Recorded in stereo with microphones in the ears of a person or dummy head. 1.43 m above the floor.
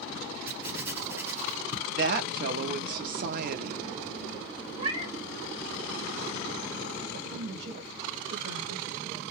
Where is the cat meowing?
40° right (ahead or behind), 1.6 m.